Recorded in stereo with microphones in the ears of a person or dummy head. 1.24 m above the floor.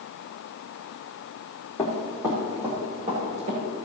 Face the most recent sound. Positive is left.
turn(degrees=-35)  # may be behind; listen again after turning